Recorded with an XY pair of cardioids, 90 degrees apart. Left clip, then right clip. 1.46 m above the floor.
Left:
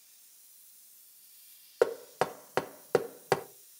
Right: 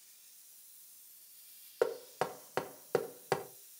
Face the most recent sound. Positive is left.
turn(degrees=40)